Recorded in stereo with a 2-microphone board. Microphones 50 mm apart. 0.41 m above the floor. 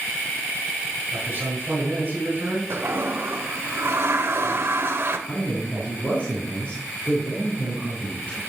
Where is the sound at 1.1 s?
35° right (ahead or behind), 5 m.